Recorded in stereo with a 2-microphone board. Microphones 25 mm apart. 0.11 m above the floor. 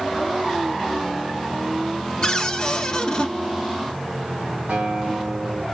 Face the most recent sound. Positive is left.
turn(degrees=-65)  # may be behind; listen again after turning